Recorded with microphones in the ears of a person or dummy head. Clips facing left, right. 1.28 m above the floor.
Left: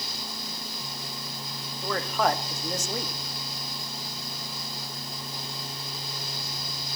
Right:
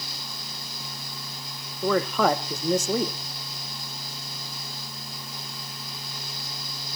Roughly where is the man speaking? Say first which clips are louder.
Right 5 dB; right.